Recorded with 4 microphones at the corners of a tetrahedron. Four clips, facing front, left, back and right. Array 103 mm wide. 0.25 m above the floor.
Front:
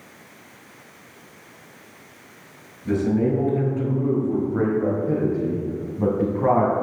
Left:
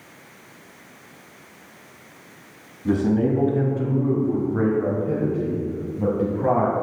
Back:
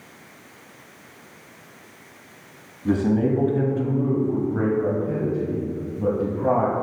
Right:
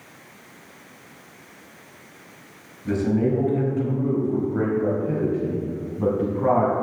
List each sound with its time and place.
2.9 s a man speaking: 145° left, 2.0 m; by 6.7 s 15° right, 2.5 m